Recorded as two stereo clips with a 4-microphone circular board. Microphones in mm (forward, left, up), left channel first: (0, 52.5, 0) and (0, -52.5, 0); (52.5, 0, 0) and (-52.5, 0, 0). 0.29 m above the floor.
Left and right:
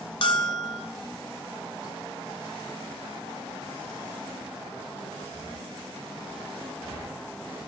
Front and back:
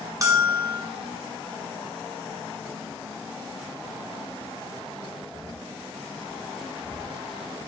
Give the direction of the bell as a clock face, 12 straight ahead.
8 o'clock.